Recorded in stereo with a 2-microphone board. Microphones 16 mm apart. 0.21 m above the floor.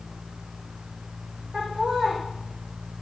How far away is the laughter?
About 9.5 m.